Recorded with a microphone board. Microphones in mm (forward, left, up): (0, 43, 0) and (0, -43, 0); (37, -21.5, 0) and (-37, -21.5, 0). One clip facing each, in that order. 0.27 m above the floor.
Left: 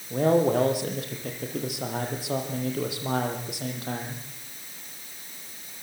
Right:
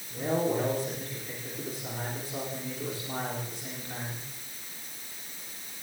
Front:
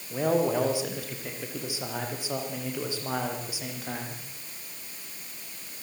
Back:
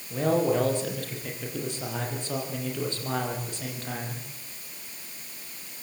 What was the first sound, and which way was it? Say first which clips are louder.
A man speaking: left 7 dB, back 1 dB; 80° left.